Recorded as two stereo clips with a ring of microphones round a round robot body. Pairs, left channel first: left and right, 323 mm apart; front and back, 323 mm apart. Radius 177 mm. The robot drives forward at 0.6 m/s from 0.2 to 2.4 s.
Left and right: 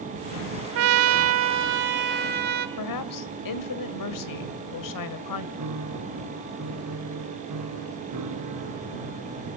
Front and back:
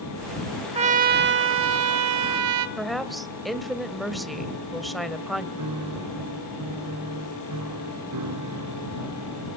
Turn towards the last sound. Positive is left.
turn(degrees=-135)